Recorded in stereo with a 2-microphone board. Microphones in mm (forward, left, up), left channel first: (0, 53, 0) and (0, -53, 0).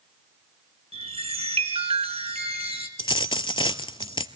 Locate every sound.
0.9 s a chime: 70° right (ahead or behind), 2.5 m
3.0 s a dropped coin: 50° left (ahead or behind), 0.6 m